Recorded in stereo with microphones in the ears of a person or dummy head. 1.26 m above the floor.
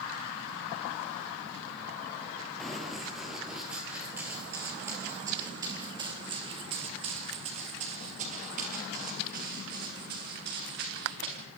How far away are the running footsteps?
About 6 m.